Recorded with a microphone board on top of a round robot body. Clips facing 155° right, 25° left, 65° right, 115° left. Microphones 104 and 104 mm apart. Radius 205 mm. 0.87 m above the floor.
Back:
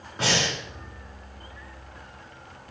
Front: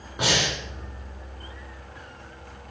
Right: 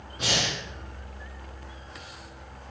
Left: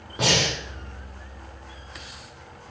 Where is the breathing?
100° left, 4 m.